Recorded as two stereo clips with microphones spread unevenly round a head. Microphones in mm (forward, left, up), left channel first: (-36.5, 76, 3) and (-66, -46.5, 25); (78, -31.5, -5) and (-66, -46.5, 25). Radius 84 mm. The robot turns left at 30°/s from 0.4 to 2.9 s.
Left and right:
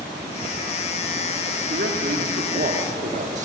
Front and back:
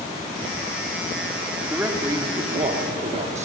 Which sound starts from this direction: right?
A man speaking, at 1.7 s.